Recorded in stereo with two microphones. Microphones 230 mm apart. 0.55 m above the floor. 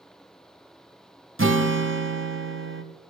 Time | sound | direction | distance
1.4 | a guitar | 60° right (ahead or behind) | 1.0 m